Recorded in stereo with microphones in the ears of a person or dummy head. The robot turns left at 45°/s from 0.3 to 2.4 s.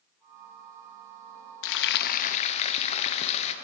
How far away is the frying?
About 0.5 m.